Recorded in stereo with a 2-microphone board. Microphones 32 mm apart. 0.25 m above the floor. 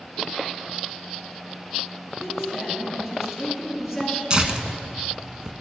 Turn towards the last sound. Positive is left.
turn(degrees=-25)  # may be behind; listen again after turning